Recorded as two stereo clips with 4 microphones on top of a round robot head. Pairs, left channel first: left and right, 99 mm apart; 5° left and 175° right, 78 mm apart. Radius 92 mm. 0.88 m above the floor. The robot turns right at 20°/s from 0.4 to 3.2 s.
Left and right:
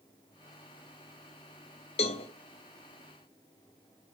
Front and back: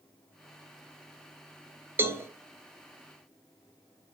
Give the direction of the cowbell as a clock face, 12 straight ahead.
8 o'clock.